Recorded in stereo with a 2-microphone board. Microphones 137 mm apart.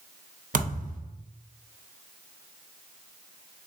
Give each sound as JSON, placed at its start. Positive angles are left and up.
{"t": 0.5, "sound": "a thud", "side_deg": -75, "distance_m": 0.7}